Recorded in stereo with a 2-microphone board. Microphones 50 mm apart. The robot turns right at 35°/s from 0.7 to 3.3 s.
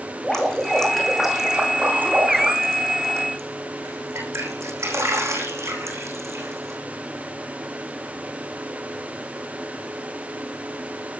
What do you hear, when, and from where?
0.2 s dripping: 10° left (ahead or behind), 7.5 m; by 6.8 s 80° right, 7.5 m